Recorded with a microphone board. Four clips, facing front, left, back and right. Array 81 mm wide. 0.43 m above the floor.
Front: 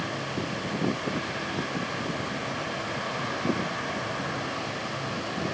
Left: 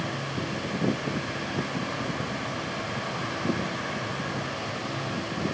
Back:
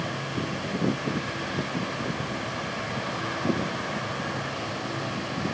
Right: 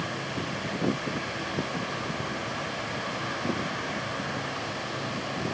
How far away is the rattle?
No rattle in this recording.